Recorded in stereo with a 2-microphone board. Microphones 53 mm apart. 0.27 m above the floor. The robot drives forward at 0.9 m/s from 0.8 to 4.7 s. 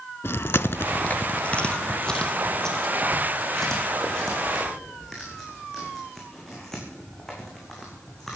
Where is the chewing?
50° left (ahead or behind), 0.5 m; by 8.4 s 5° left (ahead or behind), 4 m.